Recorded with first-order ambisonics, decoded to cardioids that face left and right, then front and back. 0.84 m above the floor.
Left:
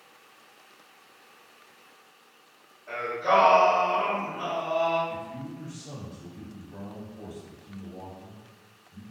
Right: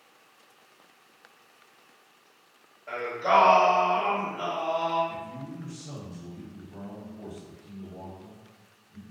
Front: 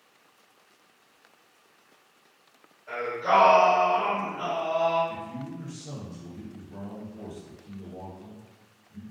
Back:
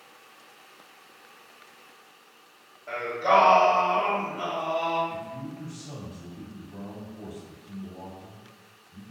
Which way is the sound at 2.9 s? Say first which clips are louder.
Even, back 2 dB; 130° right.